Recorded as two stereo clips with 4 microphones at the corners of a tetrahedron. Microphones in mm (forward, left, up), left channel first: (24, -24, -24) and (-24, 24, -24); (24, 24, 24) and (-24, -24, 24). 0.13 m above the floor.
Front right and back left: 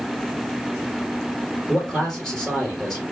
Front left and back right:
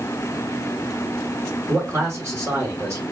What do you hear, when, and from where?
1.7 s a man speaking: 125° right, 2.5 m